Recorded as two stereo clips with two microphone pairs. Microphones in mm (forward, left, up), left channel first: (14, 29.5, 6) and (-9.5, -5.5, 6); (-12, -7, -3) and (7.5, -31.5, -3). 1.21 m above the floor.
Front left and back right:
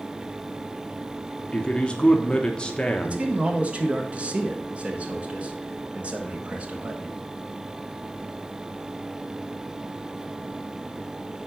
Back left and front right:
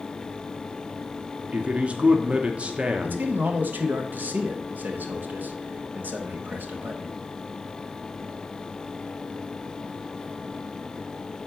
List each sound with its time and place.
1.5 s a man speaking: 10° right, 1.0 m
3.0 s a man speaking: 65° right, 1.5 m